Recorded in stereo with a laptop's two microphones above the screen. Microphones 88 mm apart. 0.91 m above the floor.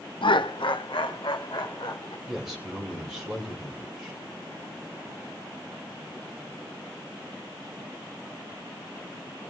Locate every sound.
0.2 s laughter: 70° left (ahead or behind), 0.7 m
2.3 s a man speaking: 5° right (ahead or behind), 3 m